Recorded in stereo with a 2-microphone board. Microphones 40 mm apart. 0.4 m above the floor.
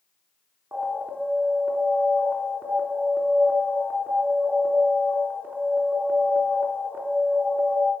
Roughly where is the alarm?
Right.